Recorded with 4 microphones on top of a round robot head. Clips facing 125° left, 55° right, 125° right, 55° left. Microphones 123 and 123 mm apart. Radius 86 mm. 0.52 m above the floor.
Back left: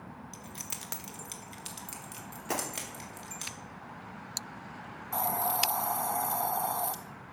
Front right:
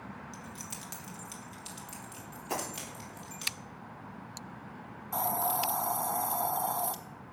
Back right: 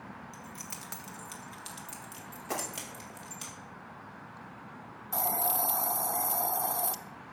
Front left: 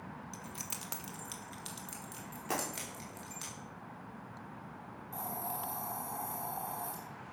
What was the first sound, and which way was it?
Keys jangling, 105° left.